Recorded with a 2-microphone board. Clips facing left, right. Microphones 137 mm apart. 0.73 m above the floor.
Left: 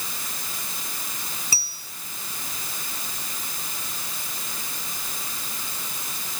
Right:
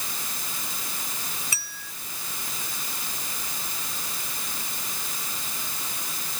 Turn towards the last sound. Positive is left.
turn(degrees=35)  # may be behind; listen again after turning